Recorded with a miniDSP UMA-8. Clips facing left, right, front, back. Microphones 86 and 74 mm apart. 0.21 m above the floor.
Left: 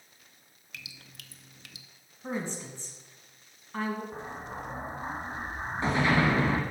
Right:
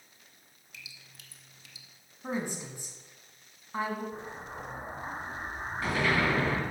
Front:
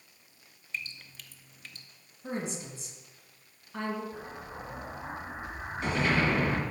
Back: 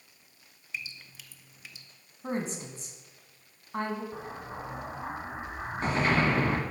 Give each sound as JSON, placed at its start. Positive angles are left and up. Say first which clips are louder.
{"t": 0.7, "sound": "dripping", "louder": "left 4 dB, front 1 dB", "azimuth_deg": 95, "distance_m": 0.6}
{"t": 2.2, "sound": "a woman speaking", "louder": "even, back 2 dB", "azimuth_deg": -160, "distance_m": 1.9}
{"t": 4.1, "sound": "an explosion", "louder": "left 2 dB, back 2 dB", "azimuth_deg": 145, "distance_m": 1.4}